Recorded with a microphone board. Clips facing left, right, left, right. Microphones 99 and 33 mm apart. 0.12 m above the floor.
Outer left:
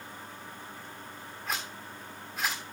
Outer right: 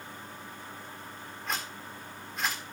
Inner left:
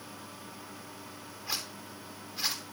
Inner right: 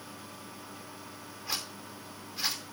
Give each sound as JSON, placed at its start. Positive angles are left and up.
{"t": 1.5, "sound": "a zipper", "side_deg": 0, "distance_m": 3.5}